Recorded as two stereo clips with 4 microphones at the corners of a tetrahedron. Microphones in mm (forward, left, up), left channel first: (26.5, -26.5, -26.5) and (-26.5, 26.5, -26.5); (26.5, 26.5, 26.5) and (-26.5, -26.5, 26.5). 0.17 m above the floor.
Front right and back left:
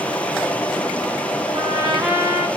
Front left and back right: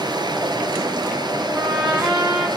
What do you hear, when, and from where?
0.0 s running water: 120° right, 2 m
1.5 s a trumpet: 145° left, 5.5 m